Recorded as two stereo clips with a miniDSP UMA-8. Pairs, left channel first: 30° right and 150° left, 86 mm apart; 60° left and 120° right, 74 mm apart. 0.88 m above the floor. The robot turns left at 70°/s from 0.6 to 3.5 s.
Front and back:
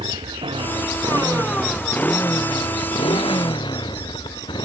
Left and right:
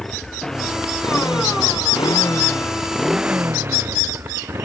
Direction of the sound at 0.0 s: 145° left.